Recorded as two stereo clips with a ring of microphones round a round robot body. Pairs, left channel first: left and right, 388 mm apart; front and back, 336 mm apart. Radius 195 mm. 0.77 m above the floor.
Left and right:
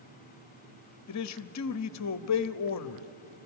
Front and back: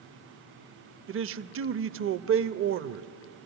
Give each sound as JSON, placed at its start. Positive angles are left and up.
{"t": 1.1, "sound": "a man speaking", "azimuth_deg": 130, "distance_m": 0.7}